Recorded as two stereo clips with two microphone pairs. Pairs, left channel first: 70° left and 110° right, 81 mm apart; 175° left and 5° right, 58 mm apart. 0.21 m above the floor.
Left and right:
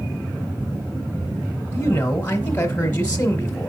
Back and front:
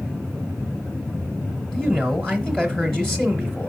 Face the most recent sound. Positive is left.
turn(degrees=105)